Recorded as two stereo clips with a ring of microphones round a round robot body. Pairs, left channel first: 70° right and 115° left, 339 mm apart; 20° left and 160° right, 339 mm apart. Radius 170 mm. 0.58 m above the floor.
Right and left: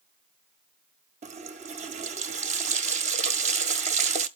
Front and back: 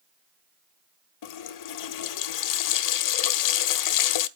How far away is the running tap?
About 0.7 m.